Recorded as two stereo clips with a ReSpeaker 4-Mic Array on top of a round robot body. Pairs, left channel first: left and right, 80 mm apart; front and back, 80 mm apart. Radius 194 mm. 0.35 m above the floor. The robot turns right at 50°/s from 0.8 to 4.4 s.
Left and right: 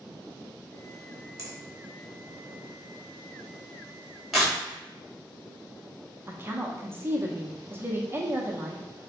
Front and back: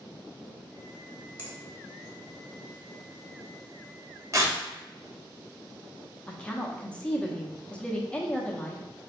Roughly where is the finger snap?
Behind right.